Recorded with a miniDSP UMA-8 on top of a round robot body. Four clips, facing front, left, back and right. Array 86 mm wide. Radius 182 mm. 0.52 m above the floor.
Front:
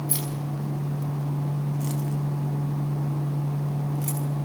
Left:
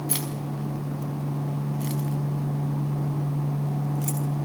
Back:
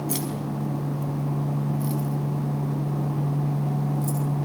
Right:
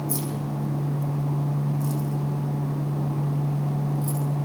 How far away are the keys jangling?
About 5 m.